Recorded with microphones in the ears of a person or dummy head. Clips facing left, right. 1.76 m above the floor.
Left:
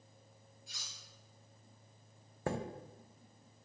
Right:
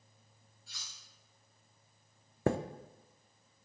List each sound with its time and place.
0.7 s cutlery clinking: 15° left (ahead or behind), 3.5 m
2.5 s a chime: 55° right (ahead or behind), 0.6 m